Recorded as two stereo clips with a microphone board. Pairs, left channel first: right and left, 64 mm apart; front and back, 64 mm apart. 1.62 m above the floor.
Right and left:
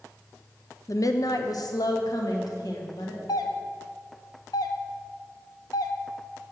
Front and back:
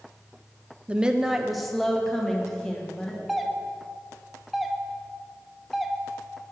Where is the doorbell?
90° right, 0.6 m.